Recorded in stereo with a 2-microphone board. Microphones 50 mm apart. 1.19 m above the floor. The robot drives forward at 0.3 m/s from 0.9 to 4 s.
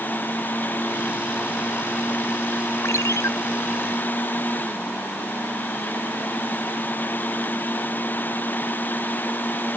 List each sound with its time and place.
2.8 s a ringtone: 70° left (ahead or behind)